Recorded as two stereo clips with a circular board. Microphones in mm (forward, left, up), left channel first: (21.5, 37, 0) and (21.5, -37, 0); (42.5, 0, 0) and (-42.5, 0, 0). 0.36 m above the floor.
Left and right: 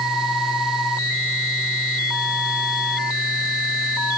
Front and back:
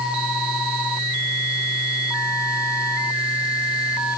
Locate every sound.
Only background noise.